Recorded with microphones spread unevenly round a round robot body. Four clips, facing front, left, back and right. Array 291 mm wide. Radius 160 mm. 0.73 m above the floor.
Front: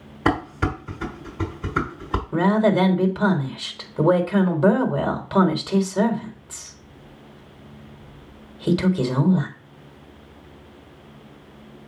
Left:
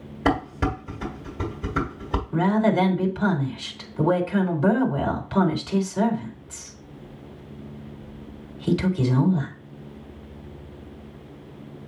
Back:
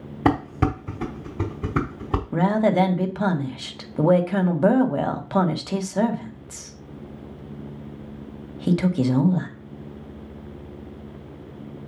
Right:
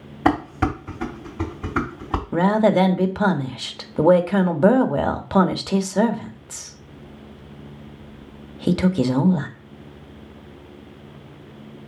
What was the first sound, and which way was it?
Dishes clattering, 165° right.